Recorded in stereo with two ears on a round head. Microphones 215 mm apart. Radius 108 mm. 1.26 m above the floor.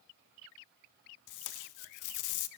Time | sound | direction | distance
1.3 | tape being pulled | 85° left | 0.5 m